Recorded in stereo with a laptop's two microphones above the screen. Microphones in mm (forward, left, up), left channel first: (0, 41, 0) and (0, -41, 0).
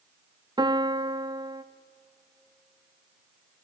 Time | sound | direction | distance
0.6 | a piano | 60° right (ahead or behind) | 0.6 m